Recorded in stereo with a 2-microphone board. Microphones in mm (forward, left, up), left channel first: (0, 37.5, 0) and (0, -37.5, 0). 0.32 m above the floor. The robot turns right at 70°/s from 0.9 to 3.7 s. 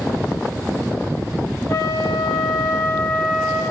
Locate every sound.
1.7 s a flute: 50° left, 0.5 m; by 3.6 s 175° right, 0.5 m